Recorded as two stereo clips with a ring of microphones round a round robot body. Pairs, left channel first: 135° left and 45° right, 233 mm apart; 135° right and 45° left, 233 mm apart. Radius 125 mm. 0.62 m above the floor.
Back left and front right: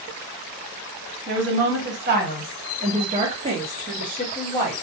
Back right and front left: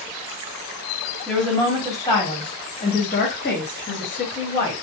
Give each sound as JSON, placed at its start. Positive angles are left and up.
{"t": 1.3, "sound": "a woman speaking", "azimuth_deg": -45, "distance_m": 1.5}